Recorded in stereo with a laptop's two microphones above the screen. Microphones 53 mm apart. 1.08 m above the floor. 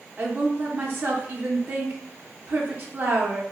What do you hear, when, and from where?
0.2 s a woman speaking: 40° right (ahead or behind), 0.6 m